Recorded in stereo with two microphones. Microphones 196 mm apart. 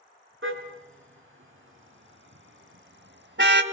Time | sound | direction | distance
0.4 | a car horn | 80° right | 3.5 m